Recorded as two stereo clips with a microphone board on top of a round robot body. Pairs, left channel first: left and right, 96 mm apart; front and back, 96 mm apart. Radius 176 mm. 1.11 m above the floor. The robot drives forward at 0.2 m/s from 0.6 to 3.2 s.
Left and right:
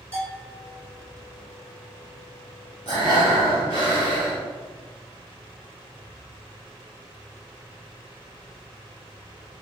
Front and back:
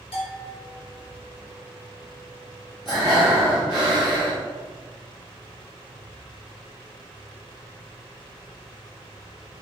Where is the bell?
20° left, 1.9 m.